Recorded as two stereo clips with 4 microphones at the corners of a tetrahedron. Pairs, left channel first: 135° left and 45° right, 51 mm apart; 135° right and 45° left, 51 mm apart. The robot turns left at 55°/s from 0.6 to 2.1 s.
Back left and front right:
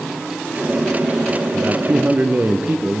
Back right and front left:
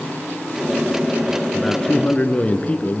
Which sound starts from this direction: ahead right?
A man speaking, at 1.5 s.